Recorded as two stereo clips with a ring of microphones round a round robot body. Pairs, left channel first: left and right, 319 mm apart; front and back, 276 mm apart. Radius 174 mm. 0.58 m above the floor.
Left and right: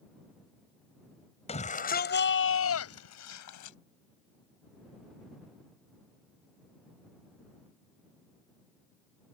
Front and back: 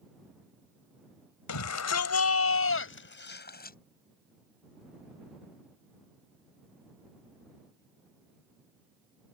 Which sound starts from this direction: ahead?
A shout, at 1.5 s.